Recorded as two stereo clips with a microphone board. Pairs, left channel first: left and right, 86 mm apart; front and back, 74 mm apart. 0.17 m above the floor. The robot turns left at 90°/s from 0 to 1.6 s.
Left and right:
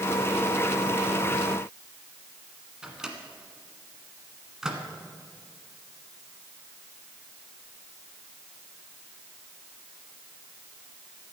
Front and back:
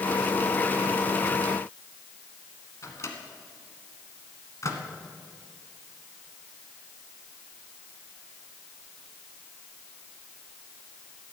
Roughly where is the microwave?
Ahead.